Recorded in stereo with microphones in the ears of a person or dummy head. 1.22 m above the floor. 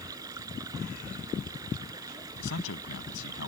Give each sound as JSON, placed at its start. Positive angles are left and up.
{"t": 0.0, "sound": "running water", "side_deg": -20}
{"t": 2.4, "sound": "a man speaking", "side_deg": 80}